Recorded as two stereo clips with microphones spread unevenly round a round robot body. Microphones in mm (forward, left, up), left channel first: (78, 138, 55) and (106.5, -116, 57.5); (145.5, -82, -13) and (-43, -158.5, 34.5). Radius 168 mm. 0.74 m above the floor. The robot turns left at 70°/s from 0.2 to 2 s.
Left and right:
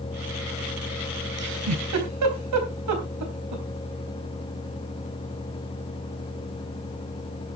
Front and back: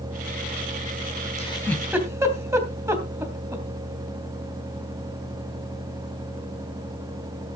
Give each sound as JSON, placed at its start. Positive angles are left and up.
{"t": 1.4, "sound": "a giggle", "azimuth_deg": -35, "distance_m": 3.0}